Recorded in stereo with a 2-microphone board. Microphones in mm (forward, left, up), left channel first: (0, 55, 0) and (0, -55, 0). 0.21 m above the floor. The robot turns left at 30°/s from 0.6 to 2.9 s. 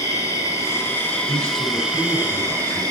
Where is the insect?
30° left, 1.1 m; by 2.9 s 40° right, 1.1 m.